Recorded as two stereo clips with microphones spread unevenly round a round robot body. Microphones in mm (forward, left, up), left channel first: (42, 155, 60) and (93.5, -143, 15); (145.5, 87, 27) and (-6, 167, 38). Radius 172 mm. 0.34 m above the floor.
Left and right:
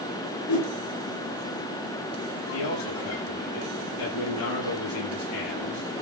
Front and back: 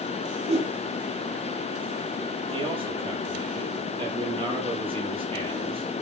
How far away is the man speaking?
About 9 m.